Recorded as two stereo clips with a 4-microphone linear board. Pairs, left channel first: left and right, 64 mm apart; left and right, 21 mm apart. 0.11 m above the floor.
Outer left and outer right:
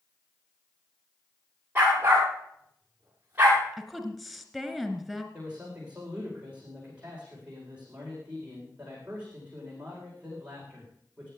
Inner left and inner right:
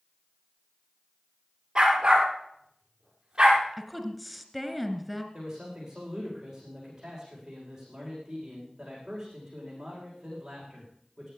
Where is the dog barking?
25° right (ahead or behind), 9 m.